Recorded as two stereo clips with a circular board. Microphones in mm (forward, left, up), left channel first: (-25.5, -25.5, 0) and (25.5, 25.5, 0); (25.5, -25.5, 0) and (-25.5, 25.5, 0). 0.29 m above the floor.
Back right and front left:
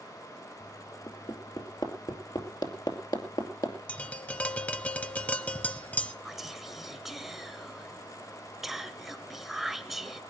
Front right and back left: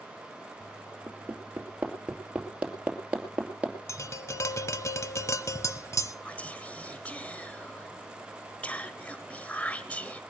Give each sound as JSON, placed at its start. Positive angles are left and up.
{"t": 1.1, "sound": "hammering", "azimuth_deg": -150, "distance_m": 2.5}
{"t": 3.9, "sound": "tapping", "azimuth_deg": -70, "distance_m": 0.9}
{"t": 6.2, "sound": "whispering", "azimuth_deg": -35, "distance_m": 0.9}